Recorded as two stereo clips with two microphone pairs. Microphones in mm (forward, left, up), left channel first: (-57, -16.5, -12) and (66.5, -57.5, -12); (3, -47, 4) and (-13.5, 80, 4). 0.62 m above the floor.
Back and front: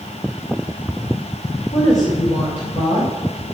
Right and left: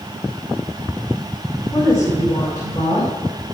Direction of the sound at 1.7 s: 145° right.